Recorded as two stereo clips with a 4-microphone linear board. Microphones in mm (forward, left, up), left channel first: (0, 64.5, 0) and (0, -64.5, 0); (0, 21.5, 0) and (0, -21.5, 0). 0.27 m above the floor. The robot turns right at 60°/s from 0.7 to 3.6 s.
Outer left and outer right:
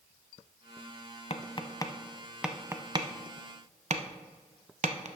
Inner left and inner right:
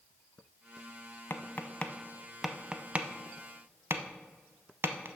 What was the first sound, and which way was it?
Tapping, 55° left (ahead or behind).